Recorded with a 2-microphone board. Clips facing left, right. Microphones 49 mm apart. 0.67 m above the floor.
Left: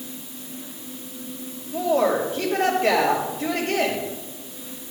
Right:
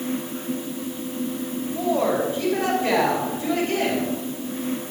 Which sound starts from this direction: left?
A woman speaking, at 1.7 s.